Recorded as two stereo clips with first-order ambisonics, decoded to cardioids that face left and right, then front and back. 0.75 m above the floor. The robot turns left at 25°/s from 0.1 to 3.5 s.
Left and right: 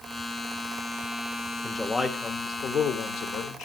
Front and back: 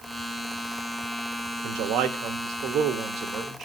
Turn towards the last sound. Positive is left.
turn(degrees=125)